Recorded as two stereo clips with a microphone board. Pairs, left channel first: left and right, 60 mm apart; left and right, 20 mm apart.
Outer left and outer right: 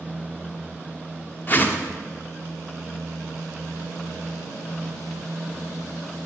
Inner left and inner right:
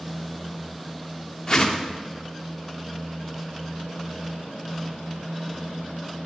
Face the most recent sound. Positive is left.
turn(degrees=35)  # may be behind; listen again after turning